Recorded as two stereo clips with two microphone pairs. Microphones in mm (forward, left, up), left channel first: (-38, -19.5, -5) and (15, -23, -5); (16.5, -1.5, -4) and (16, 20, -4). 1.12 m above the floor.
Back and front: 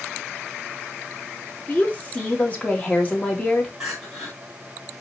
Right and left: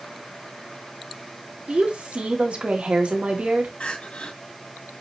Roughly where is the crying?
Right.